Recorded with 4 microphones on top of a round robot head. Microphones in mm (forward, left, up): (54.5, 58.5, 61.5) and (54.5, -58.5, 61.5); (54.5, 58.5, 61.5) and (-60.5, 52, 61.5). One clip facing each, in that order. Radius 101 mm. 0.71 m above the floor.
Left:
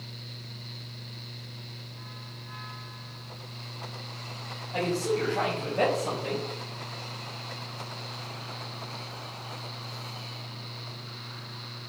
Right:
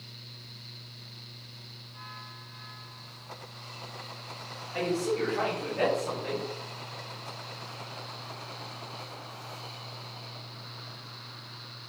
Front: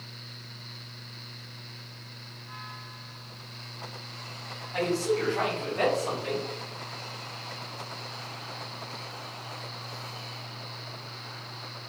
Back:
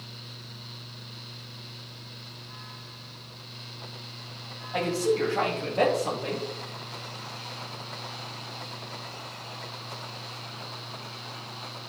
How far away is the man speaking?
About 4 m.